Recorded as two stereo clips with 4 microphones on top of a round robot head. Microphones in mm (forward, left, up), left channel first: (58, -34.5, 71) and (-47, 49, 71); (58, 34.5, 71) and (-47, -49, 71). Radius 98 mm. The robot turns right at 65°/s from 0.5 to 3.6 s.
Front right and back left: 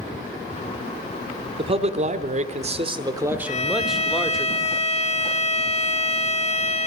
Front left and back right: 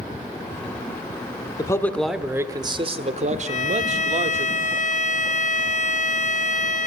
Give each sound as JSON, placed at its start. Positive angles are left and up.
{"t": 1.6, "sound": "a man speaking", "azimuth_deg": 100, "distance_m": 1.1}
{"t": 3.5, "sound": "a violin", "azimuth_deg": -5, "distance_m": 0.7}